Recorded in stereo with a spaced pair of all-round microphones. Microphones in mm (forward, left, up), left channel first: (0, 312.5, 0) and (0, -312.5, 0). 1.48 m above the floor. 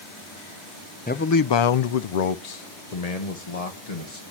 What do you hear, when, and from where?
1.1 s a man speaking: 15° left (ahead or behind), 0.5 m; by 4.2 s 65° left (ahead or behind), 1.8 m